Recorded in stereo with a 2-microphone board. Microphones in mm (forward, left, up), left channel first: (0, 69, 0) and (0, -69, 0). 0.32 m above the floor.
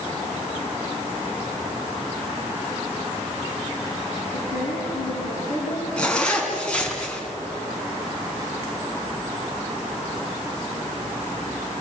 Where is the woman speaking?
75° left (ahead or behind), 5.5 m.